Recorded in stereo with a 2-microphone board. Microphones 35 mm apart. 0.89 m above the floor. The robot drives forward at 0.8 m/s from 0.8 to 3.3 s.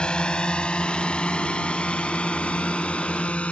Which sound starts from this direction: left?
A drone, at 0.0 s.